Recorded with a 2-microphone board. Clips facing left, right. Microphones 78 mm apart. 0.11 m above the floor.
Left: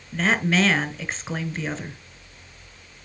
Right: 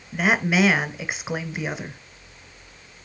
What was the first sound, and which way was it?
A woman speaking, 10° right (ahead or behind).